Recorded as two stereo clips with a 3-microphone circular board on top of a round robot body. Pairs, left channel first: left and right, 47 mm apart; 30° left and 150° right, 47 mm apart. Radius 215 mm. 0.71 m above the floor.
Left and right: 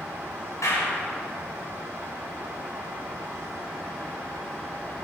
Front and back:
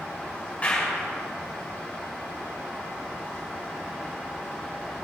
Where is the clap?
95° left, 6 m.